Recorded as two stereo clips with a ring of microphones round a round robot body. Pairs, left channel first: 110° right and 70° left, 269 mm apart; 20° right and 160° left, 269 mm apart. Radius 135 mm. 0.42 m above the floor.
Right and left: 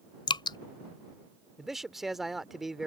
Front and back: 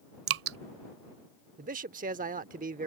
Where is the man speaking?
155° left.